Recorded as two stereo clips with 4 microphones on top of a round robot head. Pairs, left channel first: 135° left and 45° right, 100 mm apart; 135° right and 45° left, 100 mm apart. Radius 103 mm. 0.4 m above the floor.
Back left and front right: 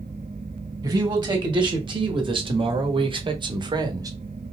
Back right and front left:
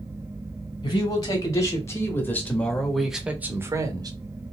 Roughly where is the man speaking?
Right.